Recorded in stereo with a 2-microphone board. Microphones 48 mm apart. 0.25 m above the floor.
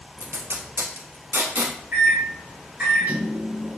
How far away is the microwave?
About 1.9 m.